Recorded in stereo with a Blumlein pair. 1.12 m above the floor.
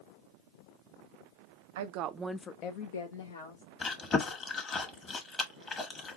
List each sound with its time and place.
1.8 s a woman speaking: 55° right, 0.8 m; by 3.6 s 75° left, 1.6 m
3.8 s chewing: 20° left, 1.3 m